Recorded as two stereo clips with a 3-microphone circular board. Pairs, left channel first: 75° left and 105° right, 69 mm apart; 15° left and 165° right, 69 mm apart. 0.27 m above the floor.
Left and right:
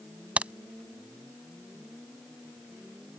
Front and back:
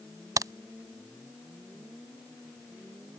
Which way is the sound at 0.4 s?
175° right.